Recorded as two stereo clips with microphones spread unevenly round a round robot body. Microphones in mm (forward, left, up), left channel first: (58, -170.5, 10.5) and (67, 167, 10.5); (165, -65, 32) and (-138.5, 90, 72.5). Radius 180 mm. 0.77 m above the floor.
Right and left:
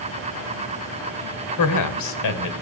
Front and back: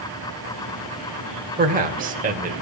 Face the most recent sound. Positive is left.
turn(degrees=-135)